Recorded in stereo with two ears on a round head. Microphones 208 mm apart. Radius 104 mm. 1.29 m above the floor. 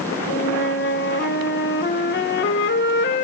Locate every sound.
0.3 s a flute: 45° left (ahead or behind), 1.4 m